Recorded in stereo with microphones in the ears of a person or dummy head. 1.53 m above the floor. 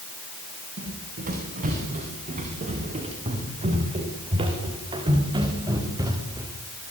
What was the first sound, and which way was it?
Running footsteps, 45° right (ahead or behind).